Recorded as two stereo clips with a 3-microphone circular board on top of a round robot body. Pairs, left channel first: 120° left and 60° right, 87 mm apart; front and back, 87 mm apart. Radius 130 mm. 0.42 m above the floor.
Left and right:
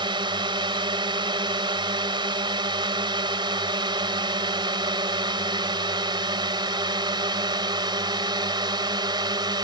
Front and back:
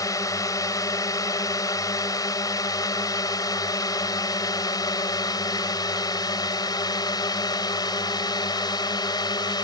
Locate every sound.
0.0 s a drone: 45° right; by 9.6 s 35° right